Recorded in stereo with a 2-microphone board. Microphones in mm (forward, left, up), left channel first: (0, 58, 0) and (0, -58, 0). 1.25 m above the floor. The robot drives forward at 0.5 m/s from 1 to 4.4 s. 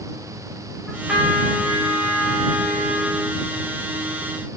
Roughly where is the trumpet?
Centre.